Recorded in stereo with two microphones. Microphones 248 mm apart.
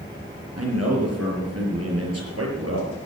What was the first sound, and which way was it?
A man speaking, 75° right (ahead or behind).